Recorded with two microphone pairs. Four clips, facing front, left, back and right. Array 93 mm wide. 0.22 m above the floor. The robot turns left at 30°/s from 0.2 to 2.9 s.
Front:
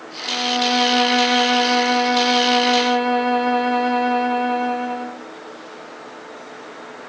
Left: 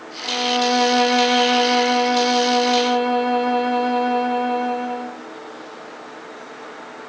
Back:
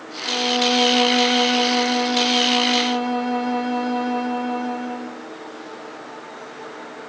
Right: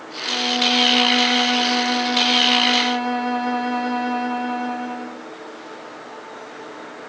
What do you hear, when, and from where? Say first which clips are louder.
0.2 s a violin: left 3 dB, even; 90° left, 0.7 m; by 5.2 s 10° left, 0.7 m